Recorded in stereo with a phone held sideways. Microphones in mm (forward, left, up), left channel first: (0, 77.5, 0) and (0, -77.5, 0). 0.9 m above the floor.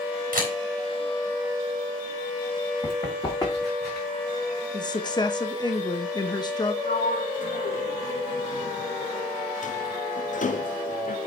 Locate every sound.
0.3 s a camera shutter: 65° right (ahead or behind), 3.5 m
2.8 s running footsteps: 30° left (ahead or behind), 4.5 m; by 4.1 s 15° left (ahead or behind), 4 m
4.7 s a woman speaking: 25° left (ahead or behind), 1.0 m
6.8 s a sliding door: 55° left (ahead or behind), 0.6 m